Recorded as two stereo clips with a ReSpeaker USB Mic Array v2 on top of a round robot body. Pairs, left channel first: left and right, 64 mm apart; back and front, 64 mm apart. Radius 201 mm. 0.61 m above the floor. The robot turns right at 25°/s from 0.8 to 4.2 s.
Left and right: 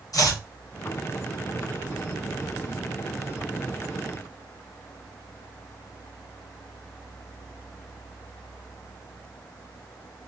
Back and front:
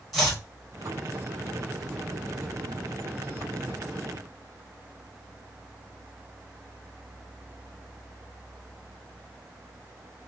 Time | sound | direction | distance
0.1 | chopping | 90° left | 2 m